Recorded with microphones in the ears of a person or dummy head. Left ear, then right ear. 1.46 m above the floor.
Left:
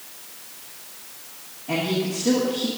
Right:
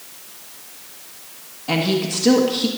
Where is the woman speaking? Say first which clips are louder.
Right 4 dB; 65° right (ahead or behind), 1.3 m.